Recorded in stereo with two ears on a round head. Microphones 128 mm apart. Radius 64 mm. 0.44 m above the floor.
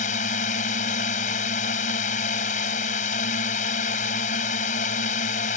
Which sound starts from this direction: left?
A drone, at 0.0 s.